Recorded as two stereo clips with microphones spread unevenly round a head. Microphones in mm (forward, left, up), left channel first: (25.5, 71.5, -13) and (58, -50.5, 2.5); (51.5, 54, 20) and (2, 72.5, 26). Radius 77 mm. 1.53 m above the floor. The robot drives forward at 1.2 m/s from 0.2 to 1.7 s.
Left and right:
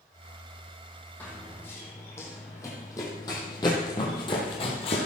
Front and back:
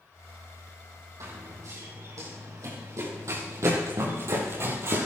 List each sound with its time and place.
1.2 s running footsteps: 170° right, 3 m; by 5.1 s 150° left, 2.5 m